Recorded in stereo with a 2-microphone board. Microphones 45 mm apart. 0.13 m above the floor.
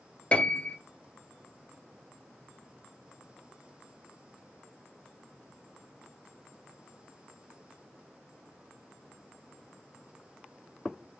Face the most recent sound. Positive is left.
turn(degrees=25)  # may be behind; listen again after turning